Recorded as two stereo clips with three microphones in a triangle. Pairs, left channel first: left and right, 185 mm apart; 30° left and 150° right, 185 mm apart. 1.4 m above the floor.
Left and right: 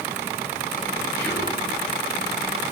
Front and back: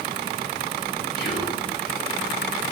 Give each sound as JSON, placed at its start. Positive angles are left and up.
{"t": 1.2, "sound": "whispering", "azimuth_deg": 10, "distance_m": 5.0}